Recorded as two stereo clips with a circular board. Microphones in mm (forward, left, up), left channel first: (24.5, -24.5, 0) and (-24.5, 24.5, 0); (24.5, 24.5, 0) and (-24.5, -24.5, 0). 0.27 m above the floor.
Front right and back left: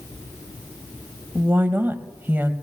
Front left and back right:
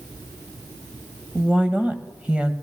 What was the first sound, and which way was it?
A woman speaking, 170° left.